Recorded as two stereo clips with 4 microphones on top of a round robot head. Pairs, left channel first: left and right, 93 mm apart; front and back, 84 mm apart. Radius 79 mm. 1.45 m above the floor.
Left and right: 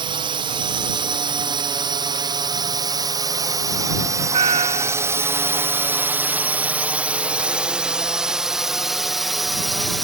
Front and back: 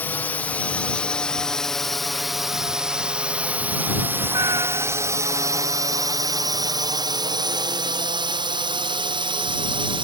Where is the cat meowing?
115° right.